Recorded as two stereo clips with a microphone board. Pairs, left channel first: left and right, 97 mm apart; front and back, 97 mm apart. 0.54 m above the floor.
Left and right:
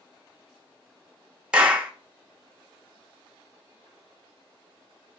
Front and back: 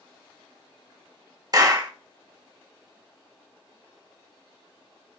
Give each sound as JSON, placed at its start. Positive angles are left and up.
{"t": 1.5, "sound": "a clap", "azimuth_deg": -165, "distance_m": 0.9}